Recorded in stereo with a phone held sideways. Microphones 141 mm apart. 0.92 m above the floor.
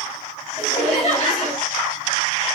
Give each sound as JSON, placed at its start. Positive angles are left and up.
{"t": 0.6, "sound": "laughter", "side_deg": 55, "distance_m": 2.5}